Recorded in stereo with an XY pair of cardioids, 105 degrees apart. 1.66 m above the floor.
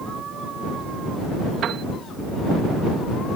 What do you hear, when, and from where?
1.6 s a piano: 65° right